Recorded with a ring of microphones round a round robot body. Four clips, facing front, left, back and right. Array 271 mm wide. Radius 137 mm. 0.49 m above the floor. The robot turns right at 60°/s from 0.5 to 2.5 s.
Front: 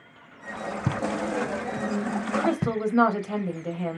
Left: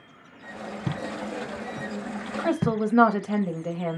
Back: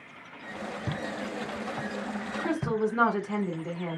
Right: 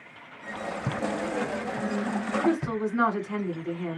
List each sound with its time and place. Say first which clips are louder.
0.9 s footsteps: right 3 dB, front 9 dB; 5° right, 2.5 m; by 2.8 s 45° left, 3 m
2.4 s a woman speaking: left 3 dB, front 1 dB; 55° left, 2.5 m; by 4.0 s 60° left, 2.5 m